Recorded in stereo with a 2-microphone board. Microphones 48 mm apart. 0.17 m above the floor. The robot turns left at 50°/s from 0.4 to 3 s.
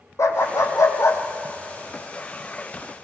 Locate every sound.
0.2 s a dog barking: 70° left (ahead or behind), 3.5 m; by 3.0 s 20° right (ahead or behind), 3.5 m